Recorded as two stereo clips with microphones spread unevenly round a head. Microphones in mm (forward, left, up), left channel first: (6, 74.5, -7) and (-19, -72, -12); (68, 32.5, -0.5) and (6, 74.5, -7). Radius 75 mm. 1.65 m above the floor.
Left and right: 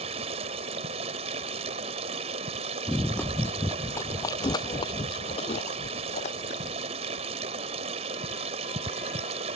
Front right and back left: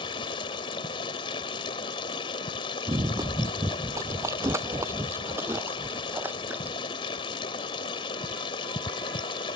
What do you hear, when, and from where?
0.0 s running water: 45° right
2.9 s running footsteps: 160° left; by 6.8 s 80° left